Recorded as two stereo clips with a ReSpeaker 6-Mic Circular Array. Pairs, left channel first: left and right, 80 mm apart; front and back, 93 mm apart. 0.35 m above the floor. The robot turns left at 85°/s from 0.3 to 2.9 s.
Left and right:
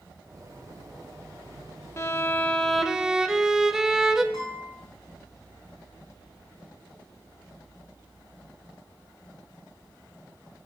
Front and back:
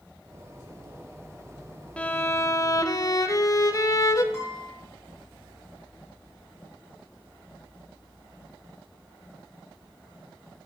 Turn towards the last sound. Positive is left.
turn(degrees=60)